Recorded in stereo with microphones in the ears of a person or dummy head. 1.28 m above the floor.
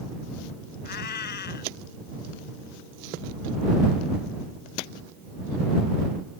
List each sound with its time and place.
0.8 s a cat meowing: 50° left (ahead or behind)